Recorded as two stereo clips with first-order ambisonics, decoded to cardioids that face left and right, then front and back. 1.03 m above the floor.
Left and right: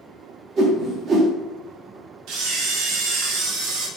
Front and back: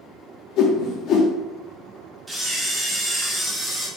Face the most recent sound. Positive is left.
turn(degrees=-100)